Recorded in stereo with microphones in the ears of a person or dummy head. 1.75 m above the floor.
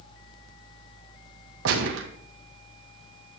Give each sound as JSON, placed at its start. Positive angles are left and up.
{"t": 1.6, "sound": "a gunshot", "side_deg": -75, "distance_m": 1.8}